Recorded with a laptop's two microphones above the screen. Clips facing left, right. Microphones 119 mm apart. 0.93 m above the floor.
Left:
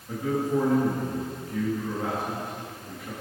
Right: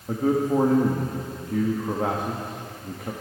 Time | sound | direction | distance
0.1 | a man speaking | 50° right (ahead or behind) | 1.3 m